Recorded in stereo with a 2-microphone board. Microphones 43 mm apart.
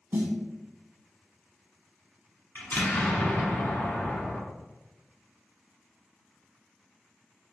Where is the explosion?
60° left (ahead or behind), 1.1 m.